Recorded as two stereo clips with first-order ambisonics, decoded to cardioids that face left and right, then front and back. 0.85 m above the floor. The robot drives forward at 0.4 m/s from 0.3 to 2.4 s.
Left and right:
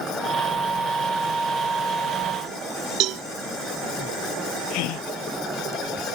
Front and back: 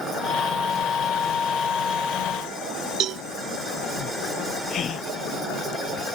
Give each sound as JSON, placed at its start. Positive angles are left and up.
{"t": 3.0, "sound": "a cowbell", "azimuth_deg": -130}
{"t": 4.7, "sound": "a gasp", "azimuth_deg": 65}